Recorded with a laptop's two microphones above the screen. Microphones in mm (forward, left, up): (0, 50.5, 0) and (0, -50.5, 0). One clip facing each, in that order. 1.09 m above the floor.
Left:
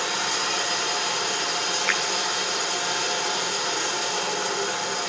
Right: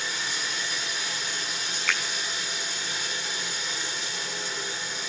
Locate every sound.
0.0 s running water: 70° left (ahead or behind), 1.4 m
1.9 s a finger snap: 5° left (ahead or behind), 7 m